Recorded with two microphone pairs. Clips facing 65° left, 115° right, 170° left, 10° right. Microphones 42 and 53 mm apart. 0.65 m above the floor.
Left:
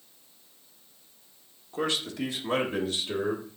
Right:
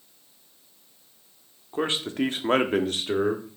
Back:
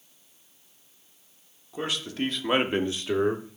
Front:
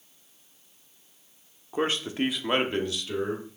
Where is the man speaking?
55° right, 1.3 m; by 3.6 s 165° right, 1.6 m.